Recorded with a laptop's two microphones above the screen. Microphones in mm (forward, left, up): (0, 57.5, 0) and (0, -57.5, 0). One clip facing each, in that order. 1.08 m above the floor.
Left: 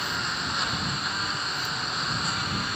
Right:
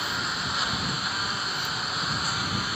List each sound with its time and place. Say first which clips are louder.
0.0 s a lawn mower: even; centre (ahead or behind)